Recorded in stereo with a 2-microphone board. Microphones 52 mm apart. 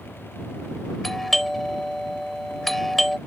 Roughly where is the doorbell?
Centre.